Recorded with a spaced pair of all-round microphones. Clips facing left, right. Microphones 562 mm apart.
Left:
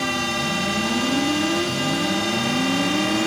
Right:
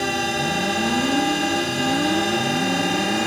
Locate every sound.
0.0 s a drone: 25° left (ahead or behind)